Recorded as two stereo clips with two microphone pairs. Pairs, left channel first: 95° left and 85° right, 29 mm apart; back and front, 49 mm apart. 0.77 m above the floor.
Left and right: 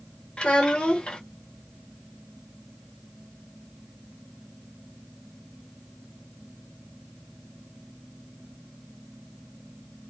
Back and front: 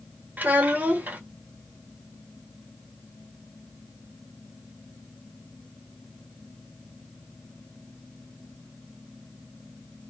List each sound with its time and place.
0.4 s a child speaking: 50° left, 0.9 m